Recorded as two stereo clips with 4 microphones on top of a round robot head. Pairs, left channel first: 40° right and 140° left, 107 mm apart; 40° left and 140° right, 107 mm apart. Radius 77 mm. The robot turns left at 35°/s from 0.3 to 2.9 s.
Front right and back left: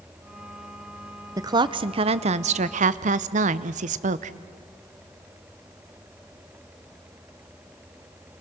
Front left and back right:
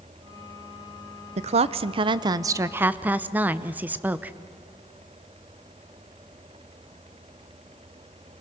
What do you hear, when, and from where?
1.4 s a woman speaking: 160° right, 0.6 m; by 4.4 s 145° left, 0.6 m